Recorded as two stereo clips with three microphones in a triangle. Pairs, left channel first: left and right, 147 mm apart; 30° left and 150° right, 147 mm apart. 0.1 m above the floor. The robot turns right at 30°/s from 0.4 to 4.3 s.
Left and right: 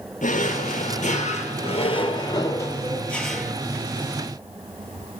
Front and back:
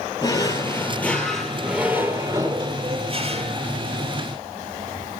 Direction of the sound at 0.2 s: 90° left.